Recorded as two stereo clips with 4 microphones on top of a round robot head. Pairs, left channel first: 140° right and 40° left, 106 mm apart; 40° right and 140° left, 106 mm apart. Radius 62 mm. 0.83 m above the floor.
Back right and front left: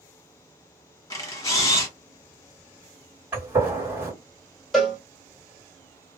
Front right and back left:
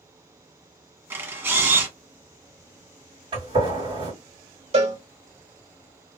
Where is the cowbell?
135° left, 1.5 m.